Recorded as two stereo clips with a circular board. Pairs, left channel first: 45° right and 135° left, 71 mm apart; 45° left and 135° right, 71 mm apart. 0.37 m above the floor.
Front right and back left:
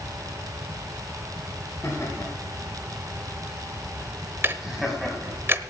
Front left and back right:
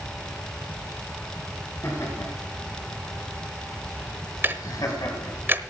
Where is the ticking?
Straight behind, 0.9 m.